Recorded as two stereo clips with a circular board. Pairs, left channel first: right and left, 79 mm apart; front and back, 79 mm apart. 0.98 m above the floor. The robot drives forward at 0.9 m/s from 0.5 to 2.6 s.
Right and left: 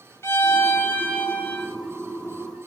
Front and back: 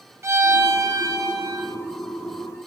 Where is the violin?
140° right, 1.2 m; by 1.8 s 160° right, 2 m.